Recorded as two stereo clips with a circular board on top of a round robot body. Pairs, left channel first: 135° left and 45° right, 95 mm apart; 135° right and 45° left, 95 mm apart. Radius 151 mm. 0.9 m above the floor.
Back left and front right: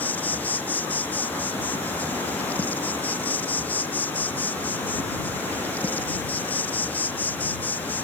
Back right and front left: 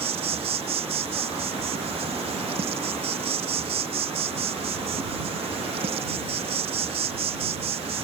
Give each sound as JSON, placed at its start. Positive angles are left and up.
{"t": 0.0, "sound": "an insect", "azimuth_deg": 60}